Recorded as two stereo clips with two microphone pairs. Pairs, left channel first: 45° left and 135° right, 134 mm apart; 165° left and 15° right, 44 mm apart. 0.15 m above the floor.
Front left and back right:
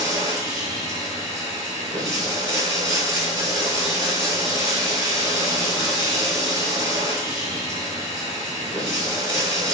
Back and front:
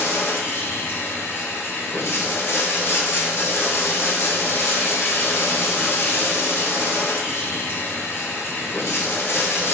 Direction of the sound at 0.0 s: 165° left.